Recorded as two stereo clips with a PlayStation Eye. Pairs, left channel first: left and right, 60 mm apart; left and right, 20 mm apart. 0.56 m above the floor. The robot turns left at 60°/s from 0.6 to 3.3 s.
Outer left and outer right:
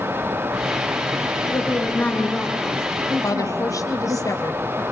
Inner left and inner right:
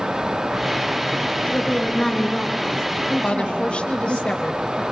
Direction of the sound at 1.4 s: 60° left.